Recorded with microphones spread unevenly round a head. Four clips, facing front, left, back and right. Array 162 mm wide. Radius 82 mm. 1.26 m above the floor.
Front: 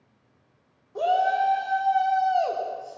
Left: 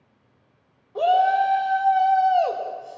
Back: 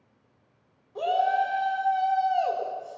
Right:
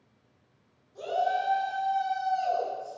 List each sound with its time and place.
0.9 s a shout: 60° left, 3.5 m